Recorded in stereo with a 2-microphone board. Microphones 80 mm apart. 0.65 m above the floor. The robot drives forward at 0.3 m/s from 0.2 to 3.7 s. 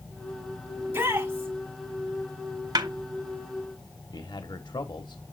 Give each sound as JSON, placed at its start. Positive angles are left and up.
{"t": 0.8, "sound": "a shout", "side_deg": -25, "distance_m": 4.0}
{"t": 2.8, "sound": "a snare drum", "side_deg": -55, "distance_m": 0.9}
{"t": 4.1, "sound": "a man speaking", "side_deg": 65, "distance_m": 1.0}